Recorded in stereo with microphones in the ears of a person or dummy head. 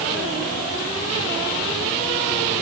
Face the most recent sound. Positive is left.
No sound to turn to.